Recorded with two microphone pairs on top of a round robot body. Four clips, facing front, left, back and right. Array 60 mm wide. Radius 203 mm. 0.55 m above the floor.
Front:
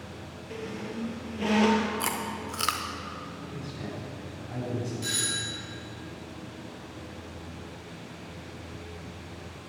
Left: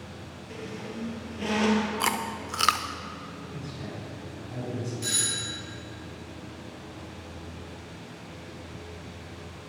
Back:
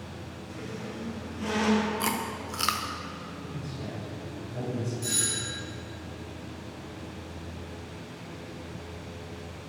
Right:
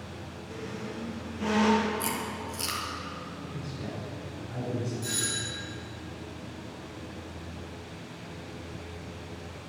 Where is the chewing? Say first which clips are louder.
Left 4 dB, back 1 dB; 90° left, 0.5 m.